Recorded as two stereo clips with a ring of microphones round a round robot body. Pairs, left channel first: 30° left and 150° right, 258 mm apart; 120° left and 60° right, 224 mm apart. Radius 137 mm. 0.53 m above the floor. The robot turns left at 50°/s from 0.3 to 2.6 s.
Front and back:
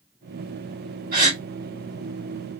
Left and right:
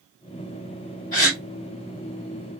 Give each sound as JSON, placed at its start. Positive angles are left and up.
{"t": 1.1, "sound": "a gasp", "azimuth_deg": 165, "distance_m": 1.6}